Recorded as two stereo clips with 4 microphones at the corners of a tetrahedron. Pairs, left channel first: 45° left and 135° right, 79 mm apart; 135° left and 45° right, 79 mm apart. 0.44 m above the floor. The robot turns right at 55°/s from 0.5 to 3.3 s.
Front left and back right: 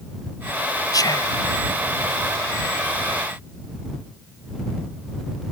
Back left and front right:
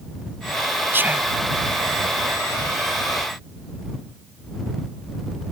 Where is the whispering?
10° left; by 1.4 s 35° left.